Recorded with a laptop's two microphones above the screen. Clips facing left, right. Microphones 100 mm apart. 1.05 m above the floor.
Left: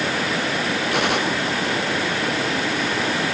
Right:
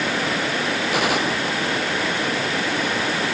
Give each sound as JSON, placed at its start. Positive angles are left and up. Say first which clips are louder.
{"t": 0.9, "sound": "a gunshot", "louder": "even", "side_deg": 0}